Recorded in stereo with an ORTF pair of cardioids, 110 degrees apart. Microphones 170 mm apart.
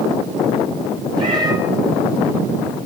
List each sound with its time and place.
1.2 s a cat meowing: 25° right, 7 m